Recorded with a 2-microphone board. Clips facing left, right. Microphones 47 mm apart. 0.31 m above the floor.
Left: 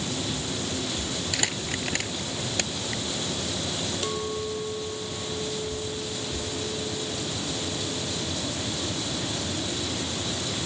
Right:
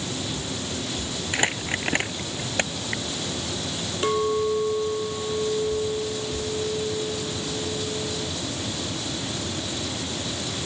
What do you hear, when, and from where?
1.3 s crumpling: 30° right (ahead or behind)
4.0 s a clink: 35° right (ahead or behind)